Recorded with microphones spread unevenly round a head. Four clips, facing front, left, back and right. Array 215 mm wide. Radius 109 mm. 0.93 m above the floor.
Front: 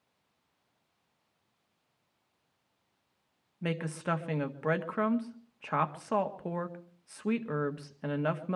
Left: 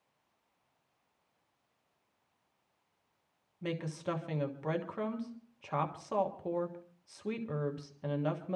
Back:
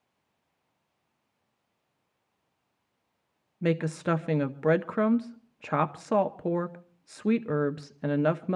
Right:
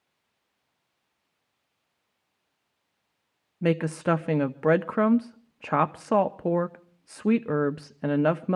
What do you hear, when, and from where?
3.6 s a woman speaking: 110° right, 0.8 m